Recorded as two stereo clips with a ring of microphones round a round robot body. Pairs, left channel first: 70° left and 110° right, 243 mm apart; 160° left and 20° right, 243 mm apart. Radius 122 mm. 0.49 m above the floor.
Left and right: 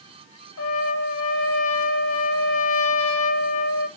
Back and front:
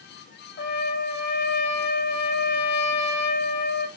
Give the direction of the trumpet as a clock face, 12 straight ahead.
8 o'clock.